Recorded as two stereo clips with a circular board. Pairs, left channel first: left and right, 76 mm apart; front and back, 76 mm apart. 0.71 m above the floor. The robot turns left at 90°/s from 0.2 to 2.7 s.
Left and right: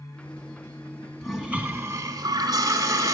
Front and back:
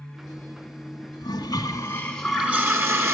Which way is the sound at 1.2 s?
10° left.